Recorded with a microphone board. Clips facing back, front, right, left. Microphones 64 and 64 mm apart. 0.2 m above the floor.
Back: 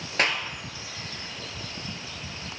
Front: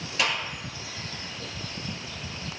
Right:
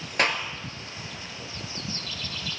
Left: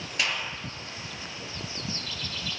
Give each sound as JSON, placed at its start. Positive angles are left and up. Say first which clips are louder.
{"t": 0.2, "sound": "a clap", "louder": "back 2 dB, right 5 dB", "azimuth_deg": -135, "distance_m": 2.5}